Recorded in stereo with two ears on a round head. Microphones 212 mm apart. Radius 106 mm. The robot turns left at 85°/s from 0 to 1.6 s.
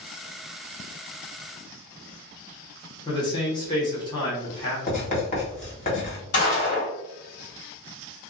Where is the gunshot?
55° left (ahead or behind), 1.9 m.